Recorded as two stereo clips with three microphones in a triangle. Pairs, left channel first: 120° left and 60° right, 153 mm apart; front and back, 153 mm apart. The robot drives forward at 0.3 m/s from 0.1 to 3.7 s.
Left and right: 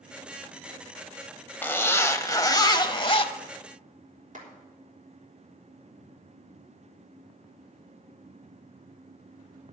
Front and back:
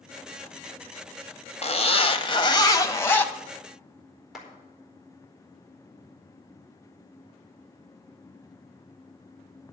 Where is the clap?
90° right, 4 m.